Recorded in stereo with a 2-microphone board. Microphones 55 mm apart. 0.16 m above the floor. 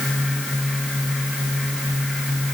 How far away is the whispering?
No whispering in this recording.